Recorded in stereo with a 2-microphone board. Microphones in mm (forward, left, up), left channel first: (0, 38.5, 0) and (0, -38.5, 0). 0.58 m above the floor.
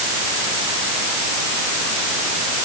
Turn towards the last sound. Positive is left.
No sound to turn to.